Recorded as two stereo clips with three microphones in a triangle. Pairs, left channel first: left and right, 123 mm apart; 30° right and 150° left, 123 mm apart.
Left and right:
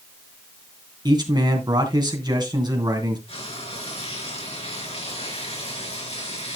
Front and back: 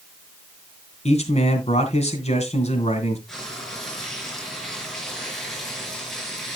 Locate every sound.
1.1 s a man speaking: 40° right, 2.5 m
3.3 s frying: 60° left, 4 m